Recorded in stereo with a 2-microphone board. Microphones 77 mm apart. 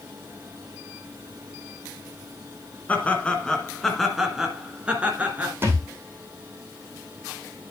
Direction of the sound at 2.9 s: 20° left (ahead or behind).